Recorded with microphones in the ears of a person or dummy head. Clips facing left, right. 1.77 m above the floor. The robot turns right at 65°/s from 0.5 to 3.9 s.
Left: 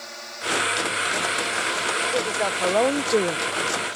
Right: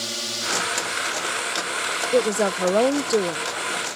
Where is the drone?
50° right; by 4.0 s 170° left.